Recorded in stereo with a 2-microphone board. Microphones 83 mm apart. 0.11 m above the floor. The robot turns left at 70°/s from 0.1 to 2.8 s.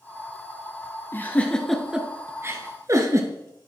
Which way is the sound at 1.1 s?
25° left (ahead or behind).